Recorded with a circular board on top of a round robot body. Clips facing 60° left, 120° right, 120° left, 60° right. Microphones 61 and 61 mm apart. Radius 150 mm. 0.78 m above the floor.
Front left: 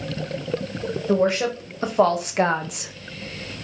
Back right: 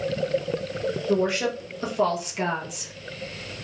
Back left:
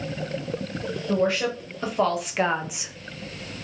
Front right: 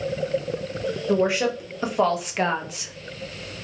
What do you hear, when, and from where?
1.1 s a woman speaking: 15° left, 1.3 m; by 2.9 s 60° left, 0.6 m